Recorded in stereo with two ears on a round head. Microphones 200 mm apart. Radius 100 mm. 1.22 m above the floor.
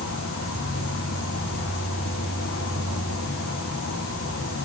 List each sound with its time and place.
0.0 s an insect: 60° left (ahead or behind), 3 m